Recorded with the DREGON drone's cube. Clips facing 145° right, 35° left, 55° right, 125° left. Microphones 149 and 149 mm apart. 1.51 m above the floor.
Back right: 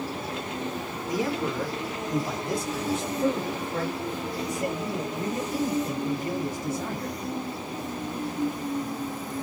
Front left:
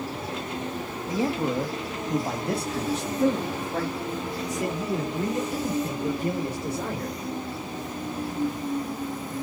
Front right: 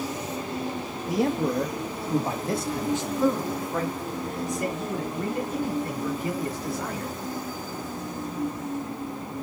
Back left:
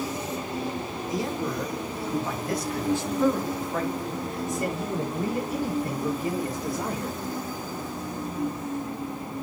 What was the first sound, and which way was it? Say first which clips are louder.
A man speaking: front left 2 dB, front right 6 dB; 30° right.